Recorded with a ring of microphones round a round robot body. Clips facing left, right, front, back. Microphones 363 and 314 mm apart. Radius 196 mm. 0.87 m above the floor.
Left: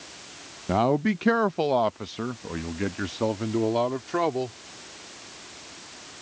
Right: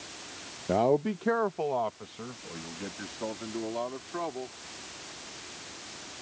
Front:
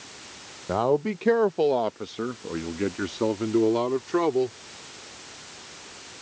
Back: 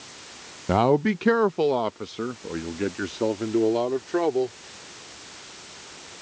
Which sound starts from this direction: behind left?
A man speaking, at 0.7 s.